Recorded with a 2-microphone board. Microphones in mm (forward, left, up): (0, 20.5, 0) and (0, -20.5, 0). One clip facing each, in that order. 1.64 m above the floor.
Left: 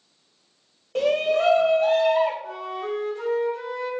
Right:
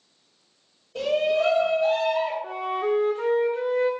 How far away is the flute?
About 0.8 m.